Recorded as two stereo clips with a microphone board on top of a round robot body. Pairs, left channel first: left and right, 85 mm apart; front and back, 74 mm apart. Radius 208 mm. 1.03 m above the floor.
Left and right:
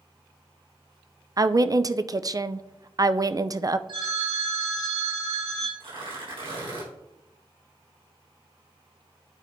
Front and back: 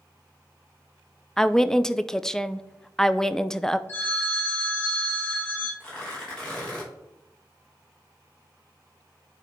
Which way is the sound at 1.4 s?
80° right.